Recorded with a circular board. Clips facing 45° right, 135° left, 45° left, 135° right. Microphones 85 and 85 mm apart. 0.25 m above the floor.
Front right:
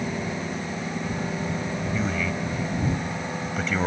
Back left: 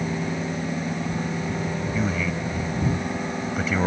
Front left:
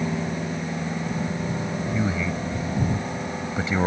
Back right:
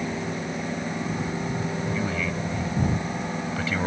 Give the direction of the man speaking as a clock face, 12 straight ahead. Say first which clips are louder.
Back left 1 dB, front left 2 dB; 10 o'clock.